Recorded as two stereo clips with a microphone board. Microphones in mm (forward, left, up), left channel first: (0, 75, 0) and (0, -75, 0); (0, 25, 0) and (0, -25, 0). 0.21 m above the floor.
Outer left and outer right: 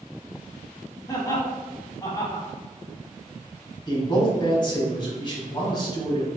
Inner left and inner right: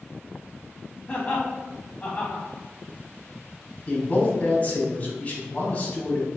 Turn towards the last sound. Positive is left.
turn(degrees=30)  # may be behind; listen again after turning